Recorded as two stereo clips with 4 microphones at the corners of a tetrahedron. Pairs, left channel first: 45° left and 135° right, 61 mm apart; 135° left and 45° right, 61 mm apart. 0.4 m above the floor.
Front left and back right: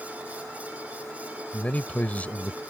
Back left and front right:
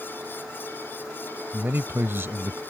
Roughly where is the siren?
No siren in this recording.